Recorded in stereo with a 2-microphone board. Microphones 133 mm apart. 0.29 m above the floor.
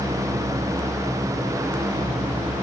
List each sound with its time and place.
Only background noise.